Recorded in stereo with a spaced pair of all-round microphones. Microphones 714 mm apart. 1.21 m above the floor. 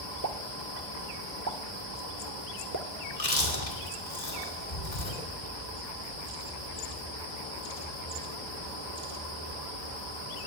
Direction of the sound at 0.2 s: 25° right (ahead or behind).